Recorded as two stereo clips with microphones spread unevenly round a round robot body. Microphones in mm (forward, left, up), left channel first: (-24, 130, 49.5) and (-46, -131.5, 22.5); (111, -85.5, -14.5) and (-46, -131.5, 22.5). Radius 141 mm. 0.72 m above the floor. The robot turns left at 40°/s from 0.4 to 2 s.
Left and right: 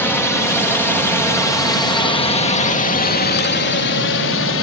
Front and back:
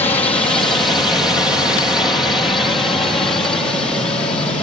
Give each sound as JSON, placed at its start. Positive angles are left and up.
{"t": 0.0, "sound": "a drone", "azimuth_deg": 0}